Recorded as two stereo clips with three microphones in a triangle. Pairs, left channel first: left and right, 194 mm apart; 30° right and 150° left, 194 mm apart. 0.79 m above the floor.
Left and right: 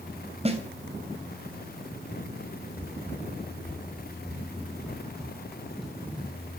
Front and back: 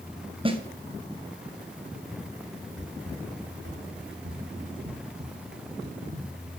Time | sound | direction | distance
0.5 | a snare drum | 145° right | 2.5 m
2.8 | running footsteps | 170° left | 6.5 m